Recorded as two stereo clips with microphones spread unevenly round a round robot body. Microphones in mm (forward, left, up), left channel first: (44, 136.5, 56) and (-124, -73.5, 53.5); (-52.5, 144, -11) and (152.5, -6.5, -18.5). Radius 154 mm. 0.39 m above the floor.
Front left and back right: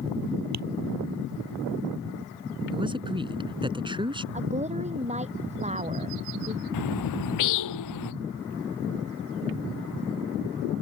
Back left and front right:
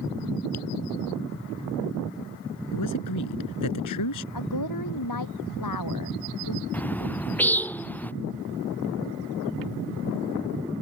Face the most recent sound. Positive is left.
turn(degrees=60)